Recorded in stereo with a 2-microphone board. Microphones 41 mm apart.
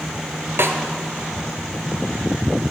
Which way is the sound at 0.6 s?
75° right (ahead or behind).